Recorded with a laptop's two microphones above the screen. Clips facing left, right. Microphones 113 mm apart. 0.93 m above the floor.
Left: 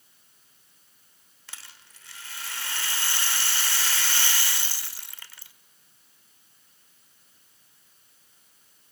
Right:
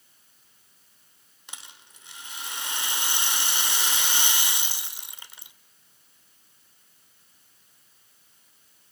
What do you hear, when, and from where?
1.5 s a rattle: 20° right (ahead or behind), 1.2 m